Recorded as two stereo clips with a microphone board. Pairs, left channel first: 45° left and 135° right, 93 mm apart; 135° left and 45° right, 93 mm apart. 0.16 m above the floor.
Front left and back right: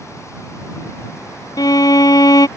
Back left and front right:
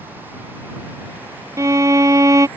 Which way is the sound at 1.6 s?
5° left.